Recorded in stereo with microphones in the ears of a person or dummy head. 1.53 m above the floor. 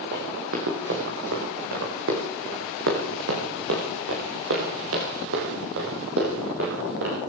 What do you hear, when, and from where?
0.1 s running footsteps: 60° right (ahead or behind), 6.5 m; by 7.2 s 80° right, 9 m